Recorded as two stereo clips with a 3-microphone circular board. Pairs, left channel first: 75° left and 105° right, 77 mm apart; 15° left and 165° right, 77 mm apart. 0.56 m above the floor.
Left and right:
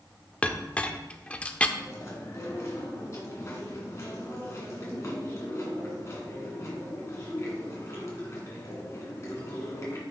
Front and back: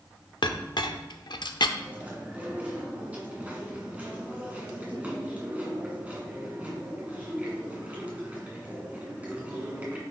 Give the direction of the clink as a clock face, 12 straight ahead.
12 o'clock.